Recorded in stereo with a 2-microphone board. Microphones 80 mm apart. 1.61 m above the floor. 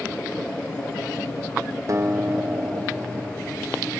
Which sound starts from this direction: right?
A guitar, at 1.9 s.